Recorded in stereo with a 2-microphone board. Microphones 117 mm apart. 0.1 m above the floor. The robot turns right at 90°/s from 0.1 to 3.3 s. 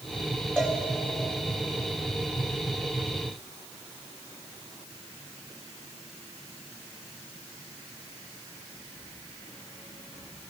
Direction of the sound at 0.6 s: 5° right (ahead or behind).